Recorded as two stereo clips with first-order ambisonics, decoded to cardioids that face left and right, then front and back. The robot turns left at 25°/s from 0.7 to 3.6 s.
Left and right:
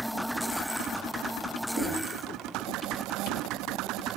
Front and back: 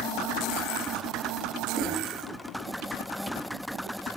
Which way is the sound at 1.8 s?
65° right.